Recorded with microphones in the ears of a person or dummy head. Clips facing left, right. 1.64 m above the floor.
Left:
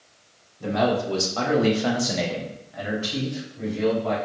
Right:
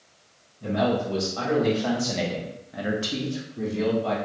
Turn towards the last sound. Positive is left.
turn(degrees=-70)  # may be behind; listen again after turning